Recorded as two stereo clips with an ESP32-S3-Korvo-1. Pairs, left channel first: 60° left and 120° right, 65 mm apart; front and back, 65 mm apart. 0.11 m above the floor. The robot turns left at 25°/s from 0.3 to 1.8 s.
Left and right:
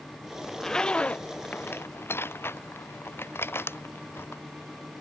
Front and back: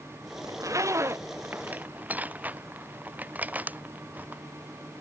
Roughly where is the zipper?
Behind left.